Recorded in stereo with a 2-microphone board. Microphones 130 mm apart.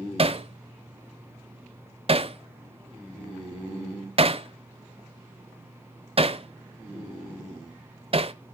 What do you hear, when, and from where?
0.2 s hammering: 45° right (ahead or behind), 0.6 m